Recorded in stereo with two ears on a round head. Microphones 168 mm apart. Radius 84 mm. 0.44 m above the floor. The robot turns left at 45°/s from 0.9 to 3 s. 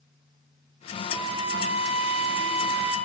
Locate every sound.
1.1 s a flute: 20° right, 2.0 m; by 3.0 s 105° right, 2.0 m